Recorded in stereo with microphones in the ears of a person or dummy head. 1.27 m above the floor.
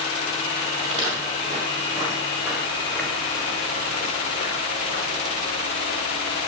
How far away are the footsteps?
About 2.5 m.